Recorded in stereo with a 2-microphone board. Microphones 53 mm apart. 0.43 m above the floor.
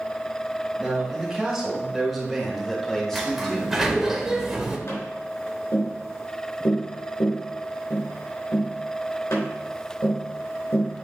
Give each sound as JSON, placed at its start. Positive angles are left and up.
{"t": 0.8, "sound": "a man speaking", "side_deg": -10, "distance_m": 2.5}
{"t": 3.1, "sound": "a sliding door", "side_deg": -5, "distance_m": 1.1}
{"t": 4.9, "sound": "tapping", "side_deg": 75, "distance_m": 3.0}